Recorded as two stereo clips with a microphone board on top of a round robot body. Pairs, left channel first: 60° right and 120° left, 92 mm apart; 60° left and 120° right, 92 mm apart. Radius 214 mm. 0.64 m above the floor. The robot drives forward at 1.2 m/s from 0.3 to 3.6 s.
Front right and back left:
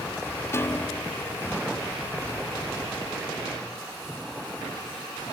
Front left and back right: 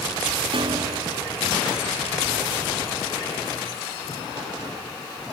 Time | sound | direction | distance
0.5 | a piano | 120° right | ?